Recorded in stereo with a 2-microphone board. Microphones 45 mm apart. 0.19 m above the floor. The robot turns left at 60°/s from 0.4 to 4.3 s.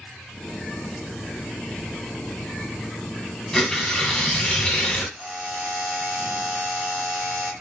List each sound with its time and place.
3.5 s tearing paper: 10° left (ahead or behind), 1.5 m; by 5.0 s 20° left (ahead or behind), 1.5 m
5.2 s a buzzer: 25° right (ahead or behind), 1.5 m